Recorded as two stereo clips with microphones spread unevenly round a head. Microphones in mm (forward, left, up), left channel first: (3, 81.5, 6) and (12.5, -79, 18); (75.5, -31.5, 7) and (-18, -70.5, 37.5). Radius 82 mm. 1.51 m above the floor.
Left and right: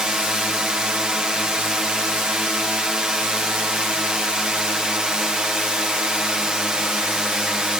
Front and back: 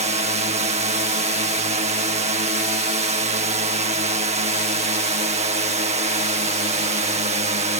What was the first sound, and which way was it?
A drone, 175° right.